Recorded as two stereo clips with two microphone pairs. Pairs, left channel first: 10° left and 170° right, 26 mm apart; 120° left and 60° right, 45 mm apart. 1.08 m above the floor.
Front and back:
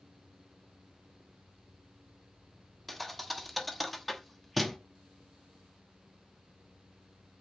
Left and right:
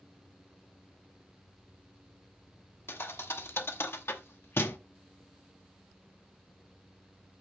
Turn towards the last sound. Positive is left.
turn(degrees=100)